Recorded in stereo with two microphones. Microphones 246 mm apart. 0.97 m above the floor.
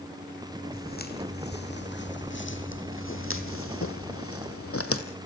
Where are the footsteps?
40° left (ahead or behind), 3 m; by 5.0 s 65° left (ahead or behind), 2 m.